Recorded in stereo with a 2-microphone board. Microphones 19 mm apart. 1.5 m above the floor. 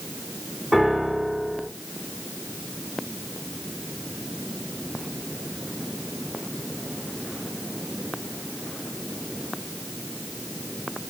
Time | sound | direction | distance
0.7 | a piano | 25° right (ahead or behind) | 2.0 m